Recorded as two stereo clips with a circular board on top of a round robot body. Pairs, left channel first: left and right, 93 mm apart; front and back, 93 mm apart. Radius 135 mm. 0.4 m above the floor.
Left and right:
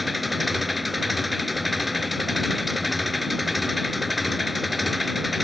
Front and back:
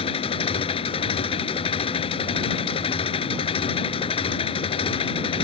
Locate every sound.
0.0 s an engine running: straight ahead